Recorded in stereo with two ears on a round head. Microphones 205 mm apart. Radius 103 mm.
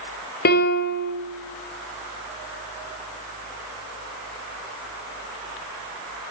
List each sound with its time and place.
0.5 s a piano: 45° left (ahead or behind), 0.7 m